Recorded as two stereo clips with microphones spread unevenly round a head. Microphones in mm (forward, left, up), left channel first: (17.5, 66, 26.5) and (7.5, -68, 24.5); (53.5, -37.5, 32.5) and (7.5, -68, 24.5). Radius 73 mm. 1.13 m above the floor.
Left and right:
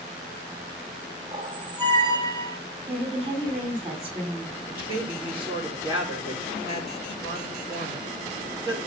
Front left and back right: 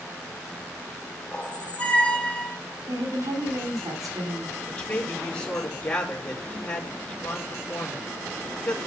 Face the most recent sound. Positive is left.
turn(degrees=-20)